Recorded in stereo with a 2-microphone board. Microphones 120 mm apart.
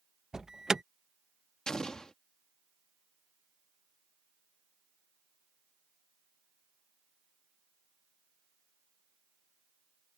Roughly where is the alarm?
Centre.